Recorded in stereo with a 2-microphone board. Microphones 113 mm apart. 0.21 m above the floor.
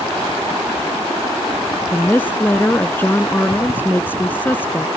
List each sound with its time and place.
1.9 s a woman speaking: 20° left (ahead or behind)